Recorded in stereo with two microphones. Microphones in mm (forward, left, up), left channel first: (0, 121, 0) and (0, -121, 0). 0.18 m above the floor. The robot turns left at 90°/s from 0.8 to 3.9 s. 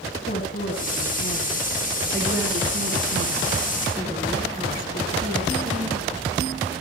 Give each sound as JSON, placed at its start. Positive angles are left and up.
{"t": 0.3, "sound": "a woman speaking", "azimuth_deg": 125, "distance_m": 3.0}